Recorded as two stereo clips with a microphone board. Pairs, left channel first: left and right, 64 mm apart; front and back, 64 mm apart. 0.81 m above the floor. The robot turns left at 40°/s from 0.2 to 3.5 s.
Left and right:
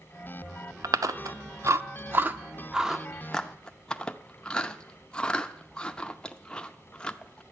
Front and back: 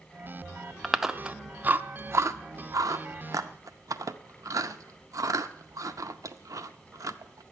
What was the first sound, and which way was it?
Chewing, 90° right.